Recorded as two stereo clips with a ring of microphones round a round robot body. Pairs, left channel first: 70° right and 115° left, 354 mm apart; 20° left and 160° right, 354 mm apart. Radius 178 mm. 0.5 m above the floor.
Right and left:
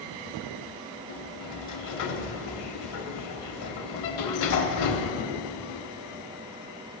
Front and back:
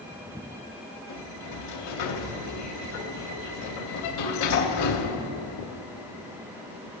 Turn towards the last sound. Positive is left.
turn(degrees=-25)